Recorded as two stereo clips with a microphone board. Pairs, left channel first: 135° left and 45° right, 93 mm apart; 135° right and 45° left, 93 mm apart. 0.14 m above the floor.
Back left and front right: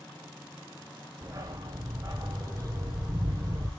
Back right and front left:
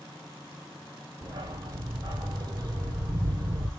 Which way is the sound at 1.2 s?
Straight ahead.